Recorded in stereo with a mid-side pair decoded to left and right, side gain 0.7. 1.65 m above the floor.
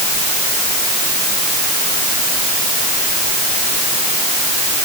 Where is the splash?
I don't hear a splash.